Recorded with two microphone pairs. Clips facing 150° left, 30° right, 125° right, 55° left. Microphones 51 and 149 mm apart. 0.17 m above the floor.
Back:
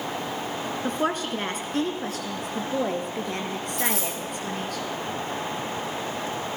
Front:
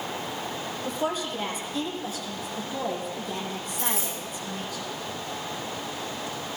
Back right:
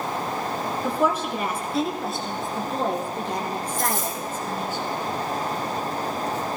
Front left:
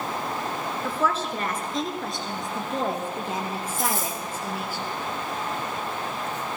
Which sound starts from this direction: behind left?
A dropped coin, at 3.8 s.